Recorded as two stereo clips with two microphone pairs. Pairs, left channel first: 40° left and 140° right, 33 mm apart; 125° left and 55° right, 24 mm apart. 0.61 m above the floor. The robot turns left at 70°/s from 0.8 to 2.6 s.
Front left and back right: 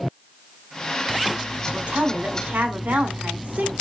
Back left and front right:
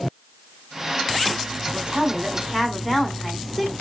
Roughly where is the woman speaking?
Right.